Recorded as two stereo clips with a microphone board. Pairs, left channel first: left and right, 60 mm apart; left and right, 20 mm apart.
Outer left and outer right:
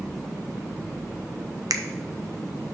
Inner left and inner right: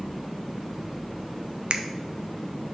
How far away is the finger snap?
About 0.6 m.